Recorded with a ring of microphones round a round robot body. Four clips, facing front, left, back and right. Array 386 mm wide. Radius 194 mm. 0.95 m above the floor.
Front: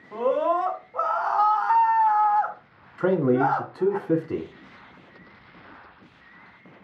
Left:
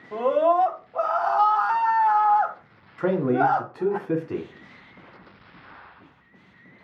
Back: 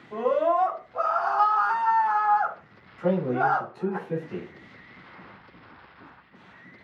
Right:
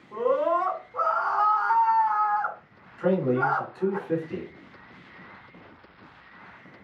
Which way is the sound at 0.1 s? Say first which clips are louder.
Left 4 dB, even; 90° left.